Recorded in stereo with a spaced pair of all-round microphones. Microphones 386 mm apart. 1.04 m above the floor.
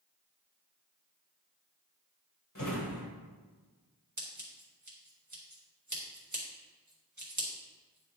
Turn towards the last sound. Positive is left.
turn(degrees=-50)  # may be behind; listen again after turning